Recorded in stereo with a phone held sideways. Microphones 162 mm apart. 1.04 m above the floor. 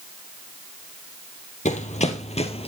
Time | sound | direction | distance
1.6 | running footsteps | 50° left (ahead or behind) | 1.7 m